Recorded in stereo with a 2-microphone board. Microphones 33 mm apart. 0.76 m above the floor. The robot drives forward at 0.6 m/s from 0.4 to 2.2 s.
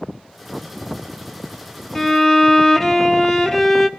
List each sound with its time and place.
1.9 s a violin: 15° left (ahead or behind), 1.6 m